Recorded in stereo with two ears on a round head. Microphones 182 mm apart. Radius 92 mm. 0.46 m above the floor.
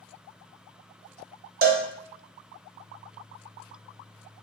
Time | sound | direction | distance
1.6 | a cowbell | 50° right (ahead or behind) | 0.6 m